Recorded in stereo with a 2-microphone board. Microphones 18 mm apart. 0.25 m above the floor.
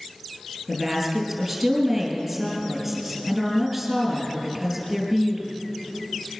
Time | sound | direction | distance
0.7 | a woman speaking | 15° right (ahead or behind) | 4.5 m